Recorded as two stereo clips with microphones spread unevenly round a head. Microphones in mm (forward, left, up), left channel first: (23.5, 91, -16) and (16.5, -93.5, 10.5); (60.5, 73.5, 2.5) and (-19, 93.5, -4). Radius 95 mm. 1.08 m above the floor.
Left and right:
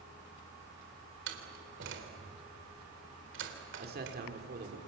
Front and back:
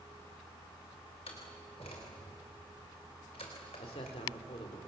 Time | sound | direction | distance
1.3 | a door slam | 70° right | 3.5 m
3.8 | a man speaking | 50° right | 3.5 m